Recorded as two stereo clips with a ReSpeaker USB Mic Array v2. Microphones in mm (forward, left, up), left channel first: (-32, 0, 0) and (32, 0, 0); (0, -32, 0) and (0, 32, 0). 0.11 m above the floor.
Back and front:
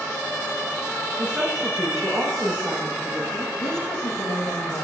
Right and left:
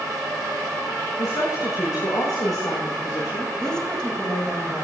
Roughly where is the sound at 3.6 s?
Behind.